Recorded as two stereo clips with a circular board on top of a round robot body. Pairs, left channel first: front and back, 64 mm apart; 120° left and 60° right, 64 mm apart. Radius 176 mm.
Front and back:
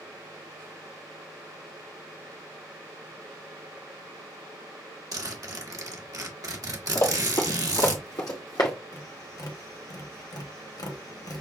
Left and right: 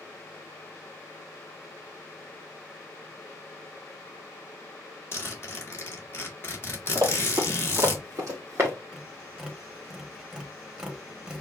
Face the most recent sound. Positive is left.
turn(degrees=15)